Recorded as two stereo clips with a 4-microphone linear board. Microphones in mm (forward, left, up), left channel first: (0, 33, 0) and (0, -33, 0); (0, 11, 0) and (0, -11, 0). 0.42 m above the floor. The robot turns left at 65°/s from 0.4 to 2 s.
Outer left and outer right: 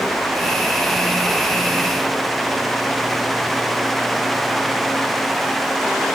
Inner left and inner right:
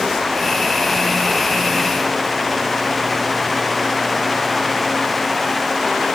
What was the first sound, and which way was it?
Only background noise.